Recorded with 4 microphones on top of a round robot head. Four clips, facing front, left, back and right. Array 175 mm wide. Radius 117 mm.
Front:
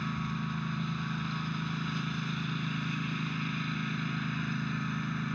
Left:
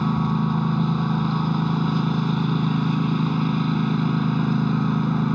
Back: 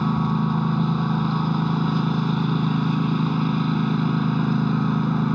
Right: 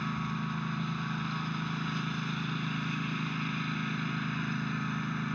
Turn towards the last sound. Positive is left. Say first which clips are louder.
# left 12 dB, back 13 dB
turn(degrees=140)